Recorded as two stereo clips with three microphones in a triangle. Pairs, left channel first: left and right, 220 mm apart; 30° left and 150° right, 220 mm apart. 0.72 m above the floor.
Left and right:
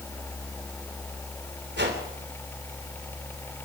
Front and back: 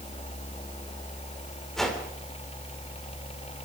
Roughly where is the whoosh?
Ahead right.